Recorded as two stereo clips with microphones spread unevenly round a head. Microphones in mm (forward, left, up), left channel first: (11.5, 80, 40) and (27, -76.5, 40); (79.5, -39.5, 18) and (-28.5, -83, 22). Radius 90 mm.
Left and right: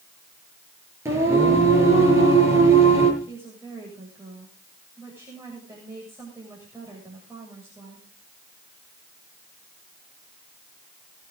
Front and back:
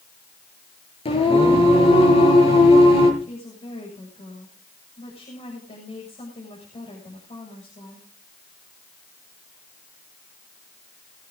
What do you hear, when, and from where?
1.1 s singing: 10° right, 7 m
3.2 s a woman speaking: 10° right, 7.5 m